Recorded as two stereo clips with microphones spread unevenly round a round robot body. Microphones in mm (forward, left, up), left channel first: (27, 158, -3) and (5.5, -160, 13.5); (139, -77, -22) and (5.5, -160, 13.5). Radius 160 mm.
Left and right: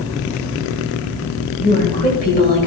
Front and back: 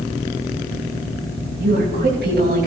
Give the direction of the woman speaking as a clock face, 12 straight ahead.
7 o'clock.